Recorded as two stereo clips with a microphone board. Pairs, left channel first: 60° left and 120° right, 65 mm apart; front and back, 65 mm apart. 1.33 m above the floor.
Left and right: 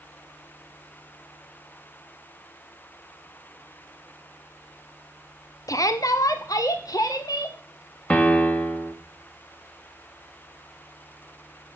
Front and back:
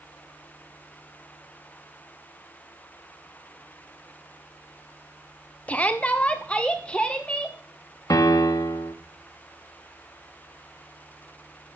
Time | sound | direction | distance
5.7 | a shout | 60° left | 0.8 m
8.1 | a piano | 5° right | 1.5 m